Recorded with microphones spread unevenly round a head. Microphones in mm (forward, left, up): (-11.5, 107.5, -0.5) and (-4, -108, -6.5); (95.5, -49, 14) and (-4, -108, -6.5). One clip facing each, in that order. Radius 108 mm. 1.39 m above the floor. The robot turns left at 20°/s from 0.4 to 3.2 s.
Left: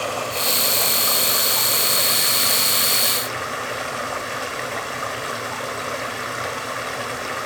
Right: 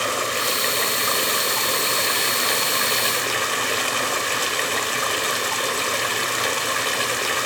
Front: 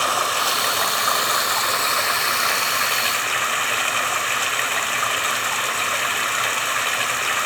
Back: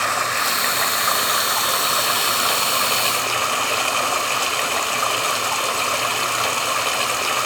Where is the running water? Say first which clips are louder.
Even, front 1 dB; 35° right, 1.5 m; by 7.5 s 90° right, 1.5 m.